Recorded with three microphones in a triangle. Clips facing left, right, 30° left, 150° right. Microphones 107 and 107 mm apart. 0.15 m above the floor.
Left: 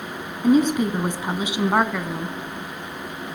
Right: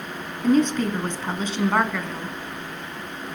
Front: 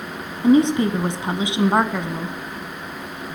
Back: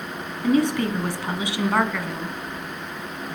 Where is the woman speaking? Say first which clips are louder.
Left 2 dB, front 5 dB; 30° left, 1.1 m.